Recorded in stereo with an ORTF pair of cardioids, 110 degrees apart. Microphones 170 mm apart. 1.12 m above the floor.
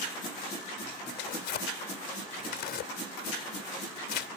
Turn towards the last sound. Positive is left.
turn(degrees=70)